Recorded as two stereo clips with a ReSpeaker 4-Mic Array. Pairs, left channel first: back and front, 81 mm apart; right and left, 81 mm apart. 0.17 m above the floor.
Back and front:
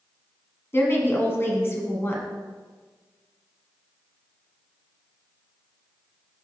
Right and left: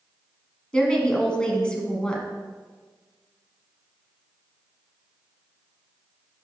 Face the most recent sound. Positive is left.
turn(degrees=-160)